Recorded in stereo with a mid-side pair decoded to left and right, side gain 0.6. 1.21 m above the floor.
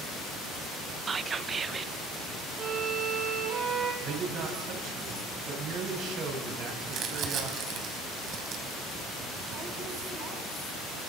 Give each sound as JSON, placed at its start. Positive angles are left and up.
{"t": 1.1, "sound": "whispering", "azimuth_deg": -30, "distance_m": 1.0}
{"t": 2.6, "sound": "a violin", "azimuth_deg": -45, "distance_m": 7.5}
{"t": 4.0, "sound": "a man speaking", "azimuth_deg": -60, "distance_m": 9.5}
{"t": 6.9, "sound": "crumpling", "azimuth_deg": -55, "distance_m": 4.5}